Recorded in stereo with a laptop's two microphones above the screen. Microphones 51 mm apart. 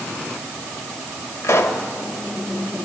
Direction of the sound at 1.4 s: 70° left (ahead or behind).